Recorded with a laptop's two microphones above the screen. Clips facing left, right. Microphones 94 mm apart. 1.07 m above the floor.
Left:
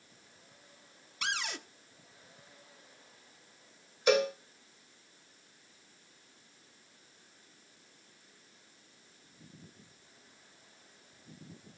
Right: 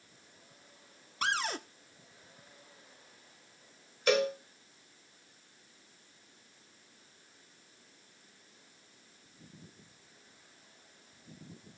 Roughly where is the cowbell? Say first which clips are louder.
Left 1 dB; centre.